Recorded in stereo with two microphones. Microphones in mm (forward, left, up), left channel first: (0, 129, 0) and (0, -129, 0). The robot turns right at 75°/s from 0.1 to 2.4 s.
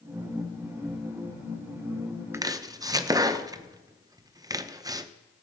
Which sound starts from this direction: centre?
Chopping, at 2.3 s.